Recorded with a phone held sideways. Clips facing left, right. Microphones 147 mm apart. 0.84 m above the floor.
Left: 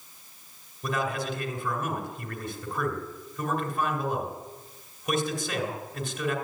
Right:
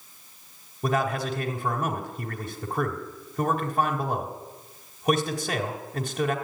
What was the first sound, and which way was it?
A man speaking, 45° right (ahead or behind).